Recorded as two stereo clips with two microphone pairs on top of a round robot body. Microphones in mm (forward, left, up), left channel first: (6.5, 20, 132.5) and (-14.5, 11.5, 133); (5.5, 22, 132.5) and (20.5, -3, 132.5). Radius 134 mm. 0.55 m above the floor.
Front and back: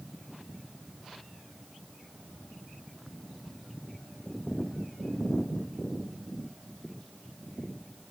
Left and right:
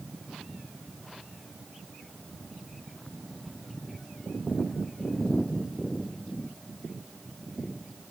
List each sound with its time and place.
Only background noise.